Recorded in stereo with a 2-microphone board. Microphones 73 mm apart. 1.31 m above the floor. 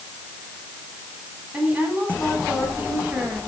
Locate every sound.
1.5 s a woman speaking: 20° right (ahead or behind), 9 m